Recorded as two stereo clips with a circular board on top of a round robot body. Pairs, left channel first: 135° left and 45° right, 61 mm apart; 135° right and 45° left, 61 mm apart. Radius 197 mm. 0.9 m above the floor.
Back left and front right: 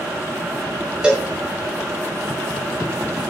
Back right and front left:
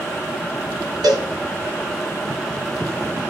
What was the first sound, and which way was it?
A cowbell, 30° left.